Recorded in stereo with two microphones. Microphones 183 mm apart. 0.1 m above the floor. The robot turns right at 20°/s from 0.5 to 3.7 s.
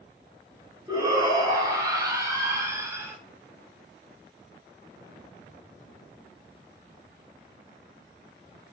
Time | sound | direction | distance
0.9 | a shout | 20° right (ahead or behind) | 1.1 m